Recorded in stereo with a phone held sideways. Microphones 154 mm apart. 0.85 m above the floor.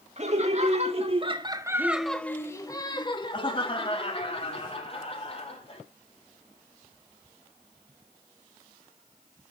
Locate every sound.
0.2 s laughter: 45° right (ahead or behind), 1.7 m; by 5.8 s 40° left (ahead or behind), 4 m